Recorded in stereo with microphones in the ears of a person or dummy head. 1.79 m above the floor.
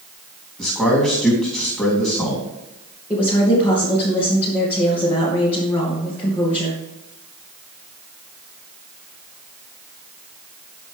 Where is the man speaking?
5° left (ahead or behind), 3.5 m.